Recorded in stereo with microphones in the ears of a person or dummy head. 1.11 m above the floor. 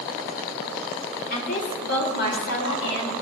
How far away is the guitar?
No guitar in this recording.